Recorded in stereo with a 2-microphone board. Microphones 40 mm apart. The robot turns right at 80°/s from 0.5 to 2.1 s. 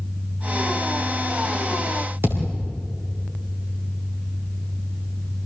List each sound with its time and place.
2.2 s a thud: 75° right (ahead or behind), 6 m